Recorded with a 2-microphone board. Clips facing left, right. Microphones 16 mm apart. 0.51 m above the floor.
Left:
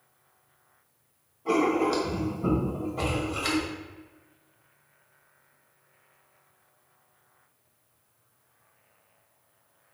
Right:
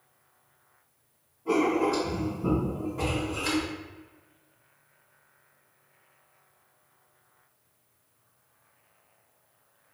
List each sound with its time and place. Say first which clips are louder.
1.4 s writing: left 1 dB; 75° left (ahead or behind), 1.3 m